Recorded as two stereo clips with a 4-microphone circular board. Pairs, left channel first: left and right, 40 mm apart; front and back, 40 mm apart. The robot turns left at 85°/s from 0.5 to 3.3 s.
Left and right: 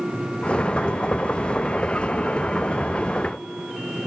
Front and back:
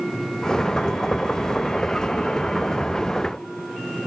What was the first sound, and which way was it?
Only background noise.